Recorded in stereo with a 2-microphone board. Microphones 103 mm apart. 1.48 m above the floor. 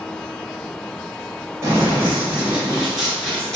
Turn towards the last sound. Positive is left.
turn(degrees=5)  # may be behind; listen again after turning